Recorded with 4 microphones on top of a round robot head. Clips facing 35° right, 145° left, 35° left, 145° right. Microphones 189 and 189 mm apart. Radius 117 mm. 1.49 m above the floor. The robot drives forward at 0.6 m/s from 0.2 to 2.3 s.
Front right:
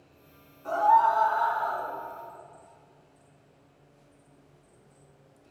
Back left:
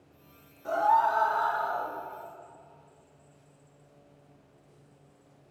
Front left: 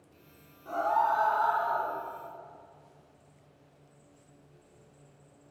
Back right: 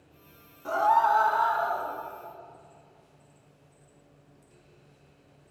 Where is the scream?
140° right, 2 m; by 1.9 s 150° right, 2.5 m.